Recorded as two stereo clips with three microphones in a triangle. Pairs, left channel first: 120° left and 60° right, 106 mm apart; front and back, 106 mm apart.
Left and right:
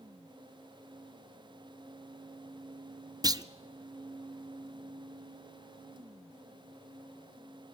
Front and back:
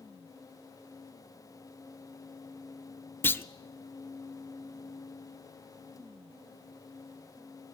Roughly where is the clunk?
Ahead right.